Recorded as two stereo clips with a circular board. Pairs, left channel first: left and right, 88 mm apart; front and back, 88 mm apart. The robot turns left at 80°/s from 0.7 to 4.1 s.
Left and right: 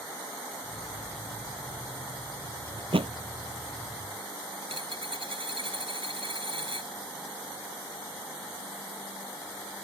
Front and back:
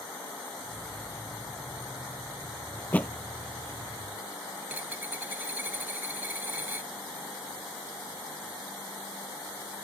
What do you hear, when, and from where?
2.8 s a thud: 60° right; by 3.1 s 85° right
4.6 s a dropped coin: 110° right